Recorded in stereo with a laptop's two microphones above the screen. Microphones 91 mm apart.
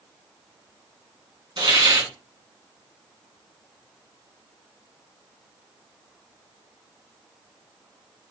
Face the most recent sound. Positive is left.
turn(degrees=-65)  # may be behind; listen again after turning